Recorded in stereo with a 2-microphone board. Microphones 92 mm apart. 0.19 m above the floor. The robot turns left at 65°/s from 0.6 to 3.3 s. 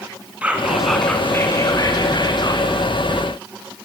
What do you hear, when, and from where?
0.4 s whispering: 165° right, 1.9 m; by 2.7 s 60° left, 1.9 m